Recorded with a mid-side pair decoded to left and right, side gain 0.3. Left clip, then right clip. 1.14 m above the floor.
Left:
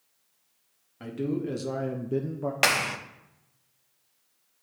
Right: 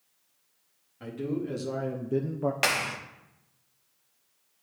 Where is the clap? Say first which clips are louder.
Left 4 dB; 40° left, 0.7 m.